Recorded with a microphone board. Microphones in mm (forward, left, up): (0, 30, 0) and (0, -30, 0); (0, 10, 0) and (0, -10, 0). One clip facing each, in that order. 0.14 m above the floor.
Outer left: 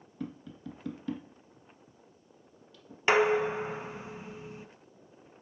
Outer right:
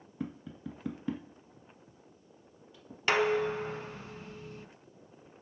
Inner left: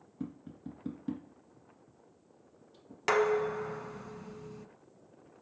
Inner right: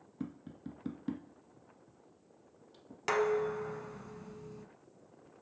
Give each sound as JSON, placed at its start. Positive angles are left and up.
{"t": 0.2, "sound": "tapping", "side_deg": -20, "distance_m": 1.5}
{"t": 3.1, "sound": "dishes clattering", "side_deg": 15, "distance_m": 0.7}